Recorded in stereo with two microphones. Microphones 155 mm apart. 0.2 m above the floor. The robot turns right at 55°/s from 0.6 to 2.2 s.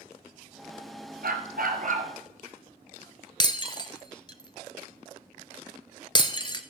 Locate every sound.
1.2 s a dog barking: 100° right, 1.4 m; by 2.1 s 50° right, 1.4 m
3.4 s breaking glass: 30° left (ahead or behind), 0.7 m